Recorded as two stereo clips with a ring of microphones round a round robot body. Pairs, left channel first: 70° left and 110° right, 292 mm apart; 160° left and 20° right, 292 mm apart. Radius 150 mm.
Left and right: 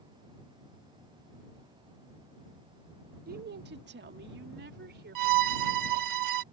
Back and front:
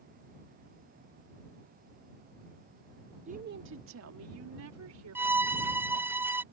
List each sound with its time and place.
3.3 s a woman speaking: 75° right; by 6.2 s 55° right
5.2 s a violin: 105° right